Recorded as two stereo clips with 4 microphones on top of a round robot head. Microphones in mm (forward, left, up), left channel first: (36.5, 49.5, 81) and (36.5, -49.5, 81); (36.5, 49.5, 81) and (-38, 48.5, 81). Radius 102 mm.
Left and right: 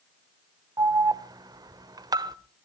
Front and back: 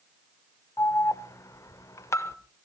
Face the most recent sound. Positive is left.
turn(degrees=-45)